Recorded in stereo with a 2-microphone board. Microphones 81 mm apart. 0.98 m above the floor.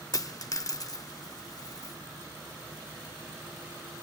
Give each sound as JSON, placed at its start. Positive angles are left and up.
{"t": 0.1, "sound": "a dropped coin", "side_deg": 45, "distance_m": 0.7}